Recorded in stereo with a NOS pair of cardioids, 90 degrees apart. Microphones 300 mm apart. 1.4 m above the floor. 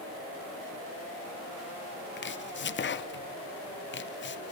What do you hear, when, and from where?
2.2 s chopping: 35° left, 0.9 m